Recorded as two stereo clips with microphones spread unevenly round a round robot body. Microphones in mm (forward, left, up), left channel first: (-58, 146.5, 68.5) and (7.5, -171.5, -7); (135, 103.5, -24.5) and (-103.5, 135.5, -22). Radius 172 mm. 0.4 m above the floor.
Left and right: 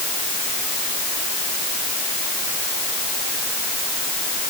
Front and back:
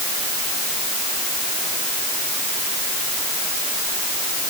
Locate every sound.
Only background noise.